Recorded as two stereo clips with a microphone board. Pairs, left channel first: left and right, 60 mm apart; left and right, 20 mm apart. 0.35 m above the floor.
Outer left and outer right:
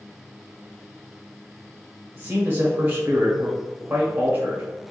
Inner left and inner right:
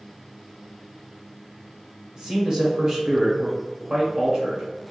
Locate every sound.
2.1 s a man speaking: 35° right (ahead or behind), 1.3 m